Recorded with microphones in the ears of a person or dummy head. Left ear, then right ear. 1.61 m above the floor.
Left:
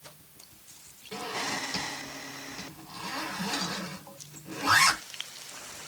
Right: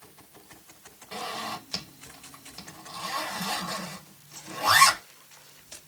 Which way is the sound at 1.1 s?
80° right.